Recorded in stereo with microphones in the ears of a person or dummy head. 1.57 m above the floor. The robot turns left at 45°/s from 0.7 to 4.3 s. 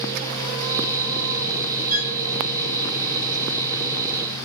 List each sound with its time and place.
1.9 s a violin: 15° right (ahead or behind), 5.5 m; by 2.2 s 30° right (ahead or behind), 5.5 m